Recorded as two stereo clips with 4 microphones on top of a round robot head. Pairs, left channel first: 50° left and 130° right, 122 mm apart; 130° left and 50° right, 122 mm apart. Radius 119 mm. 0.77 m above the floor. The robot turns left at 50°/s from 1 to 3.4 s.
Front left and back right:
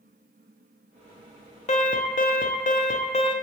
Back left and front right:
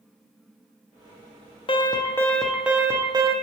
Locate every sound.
1.7 s an alarm: 85° left, 0.6 m; by 3.3 s straight ahead, 0.6 m